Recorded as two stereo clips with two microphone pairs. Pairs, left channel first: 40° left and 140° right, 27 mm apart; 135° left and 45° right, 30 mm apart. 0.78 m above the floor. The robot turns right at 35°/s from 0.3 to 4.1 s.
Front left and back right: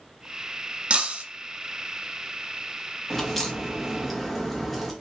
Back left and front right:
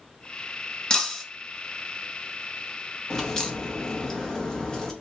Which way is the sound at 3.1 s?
100° left.